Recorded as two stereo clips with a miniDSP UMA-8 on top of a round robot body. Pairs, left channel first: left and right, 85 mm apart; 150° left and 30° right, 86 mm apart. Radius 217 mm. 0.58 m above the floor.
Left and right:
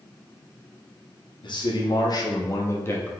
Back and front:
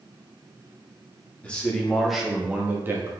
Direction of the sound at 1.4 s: 75° left.